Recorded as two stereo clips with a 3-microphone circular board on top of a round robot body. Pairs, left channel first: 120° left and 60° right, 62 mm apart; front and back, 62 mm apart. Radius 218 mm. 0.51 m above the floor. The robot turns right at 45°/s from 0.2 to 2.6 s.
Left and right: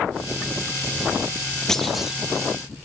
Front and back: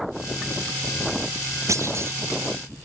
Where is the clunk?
160° right, 0.7 m; by 2.2 s 135° right, 0.7 m.